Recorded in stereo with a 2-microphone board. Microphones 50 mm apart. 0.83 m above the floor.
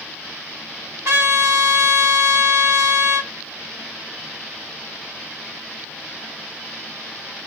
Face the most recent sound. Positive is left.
turn(degrees=-65)  # may be behind; listen again after turning